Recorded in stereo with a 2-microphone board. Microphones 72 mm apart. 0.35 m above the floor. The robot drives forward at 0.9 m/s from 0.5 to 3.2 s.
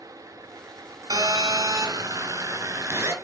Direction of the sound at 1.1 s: 70° right (ahead or behind).